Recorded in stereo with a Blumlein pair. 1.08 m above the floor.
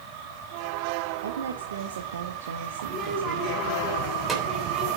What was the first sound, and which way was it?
A woman speaking, 65° right.